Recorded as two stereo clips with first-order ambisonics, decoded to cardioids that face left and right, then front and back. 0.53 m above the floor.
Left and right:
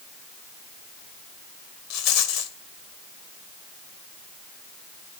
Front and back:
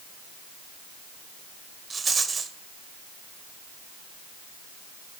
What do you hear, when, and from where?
1.9 s a rattle: 105° left, 1.2 m